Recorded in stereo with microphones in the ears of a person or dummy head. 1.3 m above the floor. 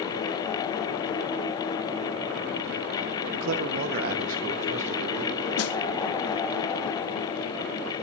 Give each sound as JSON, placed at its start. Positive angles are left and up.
{"t": 3.3, "sound": "a man speaking", "side_deg": -75, "distance_m": 0.6}
{"t": 5.6, "sound": "a snare drum", "side_deg": 65, "distance_m": 0.6}